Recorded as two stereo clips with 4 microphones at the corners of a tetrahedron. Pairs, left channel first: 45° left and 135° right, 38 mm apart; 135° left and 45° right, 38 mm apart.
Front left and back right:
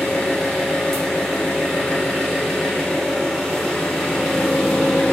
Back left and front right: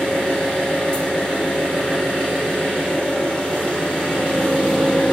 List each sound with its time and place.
0.0 s an engine running: 110° left, 1.0 m